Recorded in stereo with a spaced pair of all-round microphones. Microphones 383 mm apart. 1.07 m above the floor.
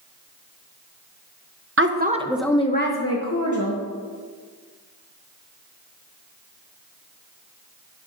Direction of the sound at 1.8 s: 35° right (ahead or behind).